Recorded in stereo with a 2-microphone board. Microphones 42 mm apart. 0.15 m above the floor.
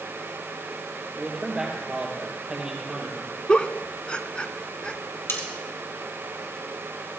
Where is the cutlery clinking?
70° left (ahead or behind), 3 m.